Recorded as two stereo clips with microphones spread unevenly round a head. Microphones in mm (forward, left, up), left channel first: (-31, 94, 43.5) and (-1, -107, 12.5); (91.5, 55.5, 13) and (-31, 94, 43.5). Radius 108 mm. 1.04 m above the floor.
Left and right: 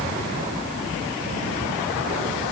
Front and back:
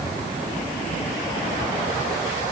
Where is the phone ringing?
No phone ringing in this recording.